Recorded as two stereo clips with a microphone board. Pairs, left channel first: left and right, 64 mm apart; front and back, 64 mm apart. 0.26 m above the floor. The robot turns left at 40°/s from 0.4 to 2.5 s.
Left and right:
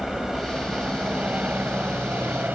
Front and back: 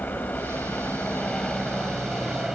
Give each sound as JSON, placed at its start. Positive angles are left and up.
{"t": 0.0, "sound": "a helicopter", "azimuth_deg": -15}